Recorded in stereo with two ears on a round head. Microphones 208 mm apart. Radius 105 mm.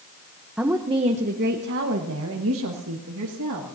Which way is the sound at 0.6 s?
5° right (ahead or behind).